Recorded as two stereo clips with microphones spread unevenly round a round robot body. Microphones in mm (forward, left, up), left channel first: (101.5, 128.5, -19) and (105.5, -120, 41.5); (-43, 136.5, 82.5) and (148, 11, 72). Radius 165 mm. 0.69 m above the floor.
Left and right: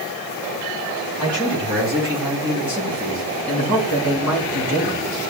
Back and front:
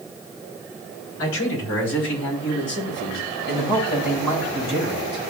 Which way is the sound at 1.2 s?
175° right.